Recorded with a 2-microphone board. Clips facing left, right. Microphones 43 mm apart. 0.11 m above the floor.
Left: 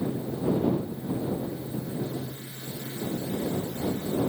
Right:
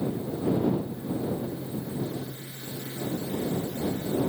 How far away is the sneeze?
No sneeze in this recording.